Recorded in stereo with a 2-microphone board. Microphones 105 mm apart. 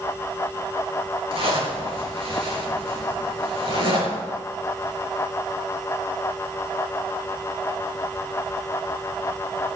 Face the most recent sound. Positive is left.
turn(degrees=-60)  # may be behind; listen again after turning